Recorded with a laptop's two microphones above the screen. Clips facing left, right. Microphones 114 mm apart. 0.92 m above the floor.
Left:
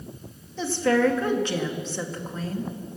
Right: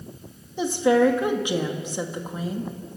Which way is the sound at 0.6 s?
15° right (ahead or behind).